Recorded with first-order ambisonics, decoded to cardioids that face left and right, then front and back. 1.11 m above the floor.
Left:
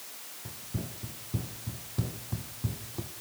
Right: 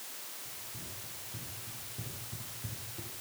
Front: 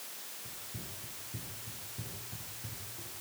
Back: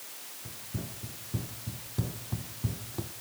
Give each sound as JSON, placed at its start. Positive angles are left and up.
{"t": 0.5, "sound": "running footsteps", "azimuth_deg": 120, "distance_m": 3.5}